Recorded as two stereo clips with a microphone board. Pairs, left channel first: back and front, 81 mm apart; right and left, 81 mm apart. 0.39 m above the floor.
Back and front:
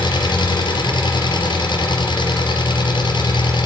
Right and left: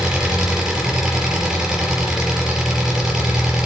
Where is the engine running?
170° left, 4.5 m.